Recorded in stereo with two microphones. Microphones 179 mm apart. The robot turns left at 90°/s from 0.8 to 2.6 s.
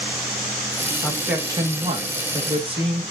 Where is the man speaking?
10° left, 1.2 m; by 3.0 s 130° right, 1.2 m.